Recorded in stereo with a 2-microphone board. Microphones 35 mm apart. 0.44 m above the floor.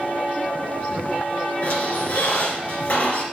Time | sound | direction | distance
1.6 | a squeak | 45° left (ahead or behind) | 3 m